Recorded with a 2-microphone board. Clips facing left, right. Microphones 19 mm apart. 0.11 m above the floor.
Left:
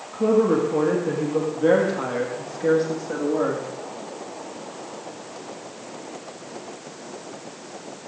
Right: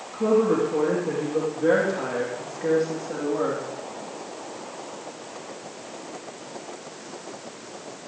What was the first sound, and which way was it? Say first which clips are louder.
A woman speaking: left 2 dB; 55° left (ahead or behind).